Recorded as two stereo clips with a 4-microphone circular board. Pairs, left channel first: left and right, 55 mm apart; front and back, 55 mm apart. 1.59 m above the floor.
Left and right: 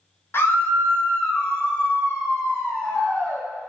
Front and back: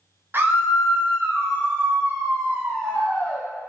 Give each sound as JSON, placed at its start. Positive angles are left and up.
{"t": 0.3, "sound": "a scream", "azimuth_deg": 135, "distance_m": 1.1}